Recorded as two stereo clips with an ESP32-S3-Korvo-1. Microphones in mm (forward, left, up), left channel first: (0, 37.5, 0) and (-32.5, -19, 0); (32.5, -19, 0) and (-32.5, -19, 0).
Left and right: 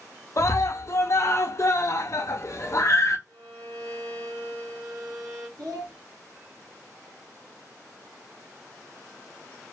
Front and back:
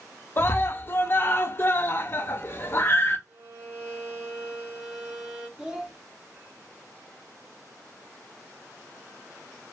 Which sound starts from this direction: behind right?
A violin, at 3.3 s.